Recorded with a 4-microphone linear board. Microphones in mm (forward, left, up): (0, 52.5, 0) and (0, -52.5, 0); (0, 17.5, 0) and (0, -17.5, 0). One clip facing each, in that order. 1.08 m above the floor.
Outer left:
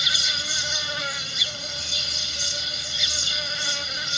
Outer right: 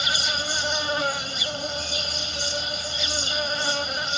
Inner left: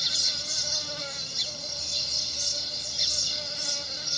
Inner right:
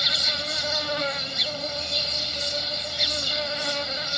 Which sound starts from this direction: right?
An insect, at 0.0 s.